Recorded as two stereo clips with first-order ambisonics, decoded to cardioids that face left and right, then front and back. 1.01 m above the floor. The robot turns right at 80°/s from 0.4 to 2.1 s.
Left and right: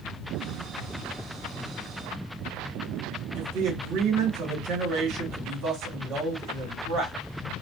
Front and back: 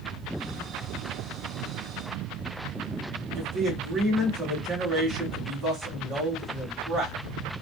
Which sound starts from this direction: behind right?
A man speaking, at 3.4 s.